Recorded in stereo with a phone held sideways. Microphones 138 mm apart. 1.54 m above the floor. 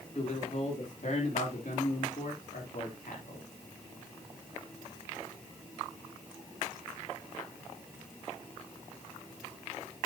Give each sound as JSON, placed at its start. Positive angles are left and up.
{"t": 0.1, "sound": "a man speaking", "side_deg": 55, "distance_m": 3.5}